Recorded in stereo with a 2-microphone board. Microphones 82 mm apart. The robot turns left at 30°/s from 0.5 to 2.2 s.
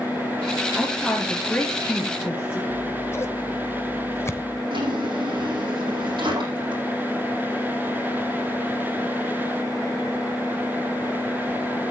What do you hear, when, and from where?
0.8 s a woman speaking: 160° right, 5.5 m; by 2.6 s 155° left, 5.5 m
2.7 s scissors: 35° left (ahead or behind), 1.1 m
4.7 s a drawer: 70° right (ahead or behind), 9.5 m